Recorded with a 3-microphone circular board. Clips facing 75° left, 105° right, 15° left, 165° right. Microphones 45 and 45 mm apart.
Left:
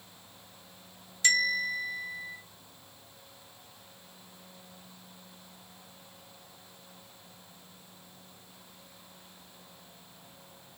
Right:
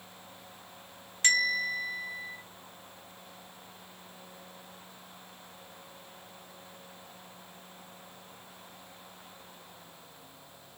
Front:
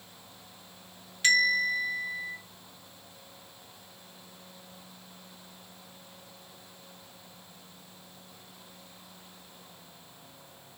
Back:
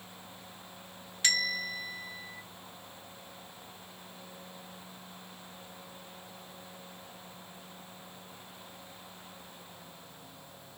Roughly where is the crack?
I don't hear a crack.